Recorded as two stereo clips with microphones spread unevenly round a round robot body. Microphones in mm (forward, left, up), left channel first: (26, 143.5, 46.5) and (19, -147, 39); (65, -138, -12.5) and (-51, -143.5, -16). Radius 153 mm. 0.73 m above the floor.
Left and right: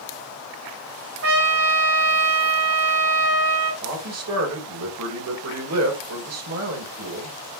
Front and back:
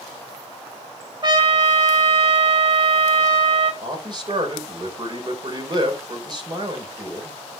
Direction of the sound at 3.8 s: 130° right.